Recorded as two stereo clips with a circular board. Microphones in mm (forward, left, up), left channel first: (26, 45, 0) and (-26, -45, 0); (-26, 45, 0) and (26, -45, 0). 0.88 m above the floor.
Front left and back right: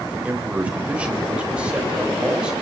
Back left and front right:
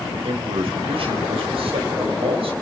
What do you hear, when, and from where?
0.1 s a man speaking: 45° right, 3.5 m; by 2.5 s 40° right, 5 m